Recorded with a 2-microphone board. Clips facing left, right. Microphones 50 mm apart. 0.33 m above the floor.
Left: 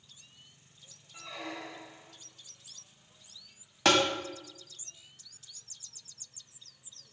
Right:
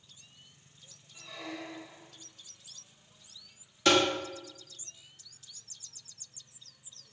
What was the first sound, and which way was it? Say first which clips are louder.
A squeak: left 1 dB; 55° left (ahead or behind).